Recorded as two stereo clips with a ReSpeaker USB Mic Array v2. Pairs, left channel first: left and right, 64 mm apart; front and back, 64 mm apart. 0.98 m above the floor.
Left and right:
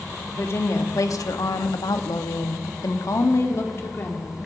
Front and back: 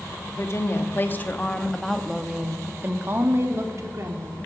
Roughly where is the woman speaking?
Ahead left.